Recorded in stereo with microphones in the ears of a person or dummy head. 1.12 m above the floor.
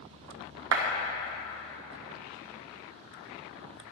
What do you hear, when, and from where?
0.7 s a clap: 75° right (ahead or behind), 0.8 m